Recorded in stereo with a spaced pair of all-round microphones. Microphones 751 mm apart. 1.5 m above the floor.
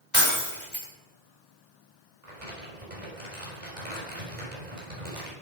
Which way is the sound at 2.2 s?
65° right (ahead or behind).